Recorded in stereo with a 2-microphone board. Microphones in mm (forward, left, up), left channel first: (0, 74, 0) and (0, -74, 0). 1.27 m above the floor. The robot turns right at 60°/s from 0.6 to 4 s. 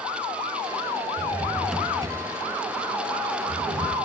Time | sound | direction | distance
1.2 | a drawer | 35° left (ahead or behind) | 6 m